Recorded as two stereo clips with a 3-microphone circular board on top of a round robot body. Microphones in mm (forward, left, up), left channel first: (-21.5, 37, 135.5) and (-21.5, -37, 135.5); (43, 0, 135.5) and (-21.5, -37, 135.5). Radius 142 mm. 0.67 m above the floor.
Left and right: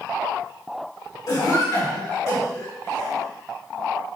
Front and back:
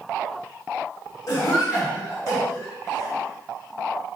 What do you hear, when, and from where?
1.3 s a cough: 70° left, 2 m